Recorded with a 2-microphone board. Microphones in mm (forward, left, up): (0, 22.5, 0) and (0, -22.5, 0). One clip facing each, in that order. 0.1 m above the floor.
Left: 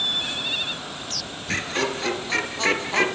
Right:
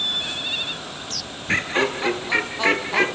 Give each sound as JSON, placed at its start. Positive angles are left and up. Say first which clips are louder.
{"t": 1.5, "sound": "laughter", "louder": "right 4 dB", "side_deg": -30, "distance_m": 2.0}